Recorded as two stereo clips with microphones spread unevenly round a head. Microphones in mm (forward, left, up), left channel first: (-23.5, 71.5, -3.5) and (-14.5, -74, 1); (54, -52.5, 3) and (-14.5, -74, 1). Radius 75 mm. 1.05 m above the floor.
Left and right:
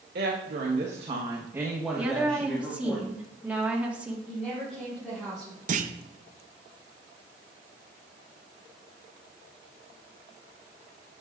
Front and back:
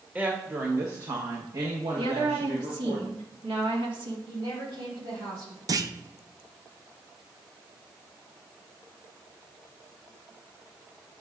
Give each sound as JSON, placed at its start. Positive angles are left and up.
{"t": 0.1, "sound": "a woman speaking", "azimuth_deg": -95, "distance_m": 1.4}
{"t": 2.0, "sound": "a woman speaking", "azimuth_deg": -165, "distance_m": 1.7}
{"t": 4.3, "sound": "a woman speaking", "azimuth_deg": -175, "distance_m": 4.0}
{"t": 5.7, "sound": "a clunk", "azimuth_deg": -125, "distance_m": 0.6}